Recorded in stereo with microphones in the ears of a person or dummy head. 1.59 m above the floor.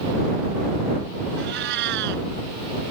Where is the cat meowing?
70° right (ahead or behind).